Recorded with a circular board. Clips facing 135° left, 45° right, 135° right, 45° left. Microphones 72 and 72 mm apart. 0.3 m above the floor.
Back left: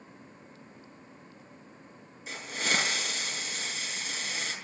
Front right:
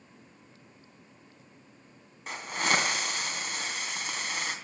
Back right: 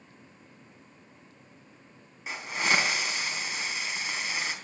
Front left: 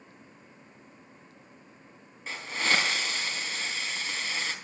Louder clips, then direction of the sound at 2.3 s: Front right 3 dB, back right 1 dB; 60° right.